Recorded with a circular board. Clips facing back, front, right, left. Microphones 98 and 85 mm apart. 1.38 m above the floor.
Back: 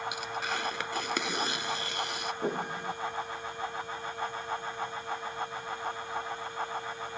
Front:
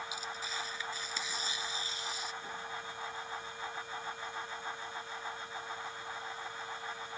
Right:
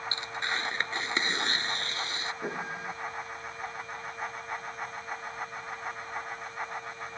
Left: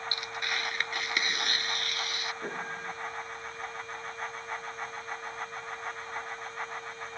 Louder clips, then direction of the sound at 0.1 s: Back 7 dB, right 1 dB; 155° right.